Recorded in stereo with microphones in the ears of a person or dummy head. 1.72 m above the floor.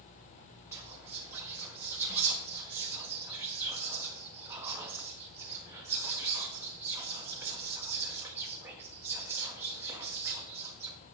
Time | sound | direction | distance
0.7 | whispering | 10° right (ahead or behind) | 1.4 m